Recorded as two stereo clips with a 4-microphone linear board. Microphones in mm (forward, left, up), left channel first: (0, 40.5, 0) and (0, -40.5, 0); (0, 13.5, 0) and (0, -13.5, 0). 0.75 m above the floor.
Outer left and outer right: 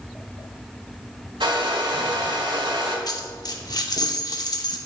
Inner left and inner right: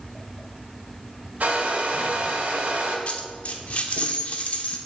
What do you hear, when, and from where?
1.4 s a hair dryer: 90° right, 1.7 m
3.1 s a dropped coin: 55° left (ahead or behind), 0.7 m